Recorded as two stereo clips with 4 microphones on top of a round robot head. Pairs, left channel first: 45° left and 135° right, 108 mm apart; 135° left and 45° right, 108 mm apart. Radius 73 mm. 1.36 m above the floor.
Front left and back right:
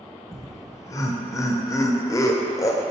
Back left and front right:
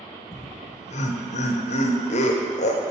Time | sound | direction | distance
0.3 | laughter | 110° left | 0.7 m